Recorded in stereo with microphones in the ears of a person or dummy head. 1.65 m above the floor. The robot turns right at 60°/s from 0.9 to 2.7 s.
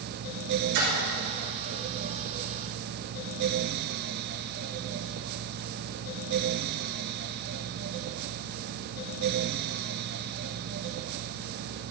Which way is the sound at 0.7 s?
55° right (ahead or behind).